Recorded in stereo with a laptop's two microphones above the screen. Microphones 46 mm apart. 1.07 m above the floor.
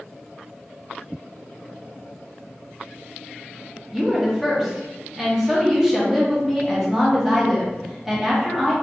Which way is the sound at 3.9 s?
10° right (ahead or behind).